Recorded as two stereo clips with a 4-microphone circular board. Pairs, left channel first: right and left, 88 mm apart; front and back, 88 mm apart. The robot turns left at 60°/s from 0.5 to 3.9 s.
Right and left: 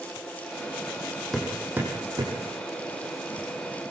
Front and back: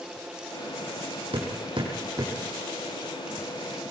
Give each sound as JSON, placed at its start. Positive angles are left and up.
{"t": 1.3, "sound": "hammering", "azimuth_deg": -175, "distance_m": 5.5}